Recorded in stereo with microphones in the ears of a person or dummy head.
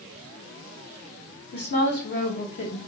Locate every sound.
1.5 s a woman speaking: 50° left (ahead or behind), 1.2 m